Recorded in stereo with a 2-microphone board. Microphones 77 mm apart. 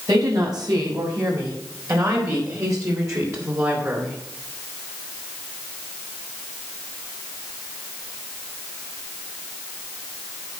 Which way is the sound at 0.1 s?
65° right (ahead or behind).